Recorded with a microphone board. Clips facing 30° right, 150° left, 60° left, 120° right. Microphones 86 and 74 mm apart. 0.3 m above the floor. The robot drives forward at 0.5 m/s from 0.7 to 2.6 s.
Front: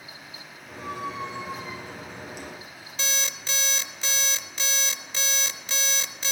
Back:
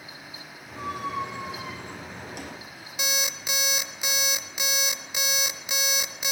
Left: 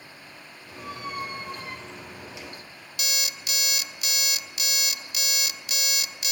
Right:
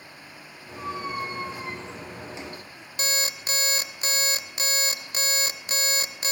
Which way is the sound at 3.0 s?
140° right.